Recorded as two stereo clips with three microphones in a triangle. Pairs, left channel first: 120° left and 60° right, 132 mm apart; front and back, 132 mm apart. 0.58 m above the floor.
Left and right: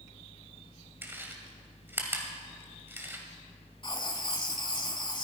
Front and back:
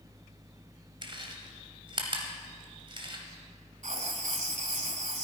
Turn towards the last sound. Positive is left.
turn(degrees=170)